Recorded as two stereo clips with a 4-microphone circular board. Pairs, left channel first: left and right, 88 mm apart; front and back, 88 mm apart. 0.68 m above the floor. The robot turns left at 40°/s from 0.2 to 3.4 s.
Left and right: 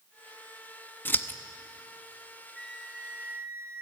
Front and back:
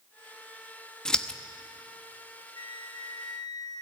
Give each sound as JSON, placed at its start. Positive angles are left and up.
{"t": 1.1, "sound": "scissors", "azimuth_deg": 70, "distance_m": 0.9}
{"t": 2.5, "sound": "a flute", "azimuth_deg": 5, "distance_m": 1.7}